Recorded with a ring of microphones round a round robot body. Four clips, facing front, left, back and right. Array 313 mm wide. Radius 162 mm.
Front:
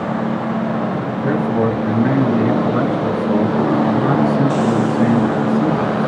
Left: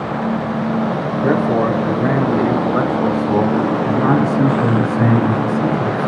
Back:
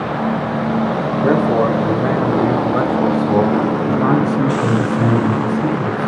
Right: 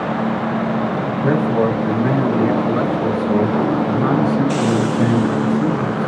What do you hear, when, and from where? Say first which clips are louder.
1.2 s a man speaking: left 1 dB, back 3 dB; 150° left, 2.5 m; by 6.1 s 130° left, 5 m